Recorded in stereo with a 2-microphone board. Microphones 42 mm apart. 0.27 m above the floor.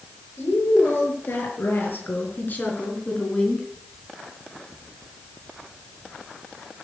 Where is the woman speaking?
70° left (ahead or behind), 6.5 m; by 3.7 s 15° left (ahead or behind), 3.5 m.